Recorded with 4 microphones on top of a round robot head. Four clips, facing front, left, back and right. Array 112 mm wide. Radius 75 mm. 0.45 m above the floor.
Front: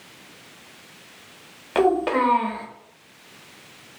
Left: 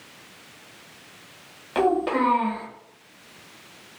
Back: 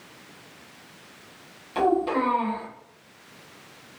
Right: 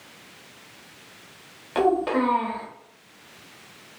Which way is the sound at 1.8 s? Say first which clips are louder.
Even, front 3 dB; straight ahead.